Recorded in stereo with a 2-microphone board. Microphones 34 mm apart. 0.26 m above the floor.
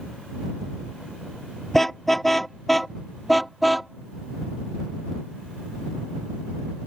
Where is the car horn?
10° left (ahead or behind); by 6.9 s 5° right (ahead or behind).